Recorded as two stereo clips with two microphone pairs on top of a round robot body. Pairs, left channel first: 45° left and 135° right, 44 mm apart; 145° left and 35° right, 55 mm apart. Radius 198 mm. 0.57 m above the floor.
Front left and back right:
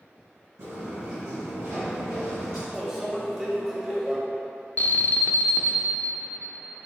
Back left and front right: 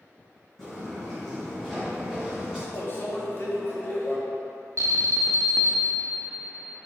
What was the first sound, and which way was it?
Footsteps, 130° right.